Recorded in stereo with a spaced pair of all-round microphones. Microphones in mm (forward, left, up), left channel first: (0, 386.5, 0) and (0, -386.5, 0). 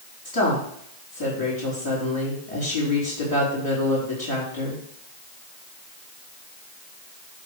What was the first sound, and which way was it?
A woman speaking, 25° right (ahead or behind).